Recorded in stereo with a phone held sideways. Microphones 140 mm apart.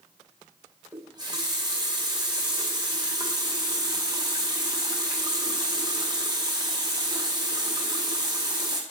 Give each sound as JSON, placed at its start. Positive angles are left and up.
{"t": 0.9, "sound": "a running tap", "side_deg": -30, "distance_m": 0.8}